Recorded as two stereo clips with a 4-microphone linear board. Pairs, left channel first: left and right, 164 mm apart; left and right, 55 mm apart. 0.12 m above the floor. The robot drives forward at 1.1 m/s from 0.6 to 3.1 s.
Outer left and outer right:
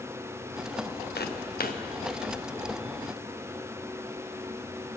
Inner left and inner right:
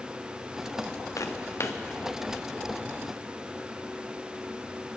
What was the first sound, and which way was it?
Footsteps, 80° left.